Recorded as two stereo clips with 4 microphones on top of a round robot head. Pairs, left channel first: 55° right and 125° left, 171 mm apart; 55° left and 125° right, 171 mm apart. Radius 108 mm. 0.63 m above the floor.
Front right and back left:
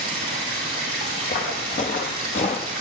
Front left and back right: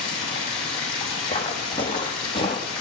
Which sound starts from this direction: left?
Running water, at 0.0 s.